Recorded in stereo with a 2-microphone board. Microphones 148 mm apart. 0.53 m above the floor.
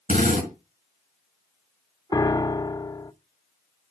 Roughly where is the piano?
Left.